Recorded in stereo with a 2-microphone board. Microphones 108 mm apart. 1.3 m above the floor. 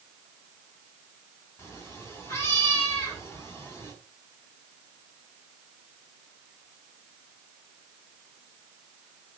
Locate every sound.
1.6 s a cat meowing: 25° left (ahead or behind), 5 m